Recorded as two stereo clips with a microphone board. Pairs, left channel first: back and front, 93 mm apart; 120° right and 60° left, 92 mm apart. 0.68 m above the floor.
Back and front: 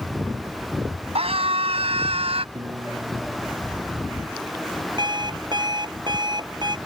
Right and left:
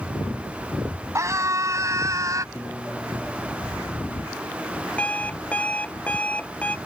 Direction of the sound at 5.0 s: 45° right.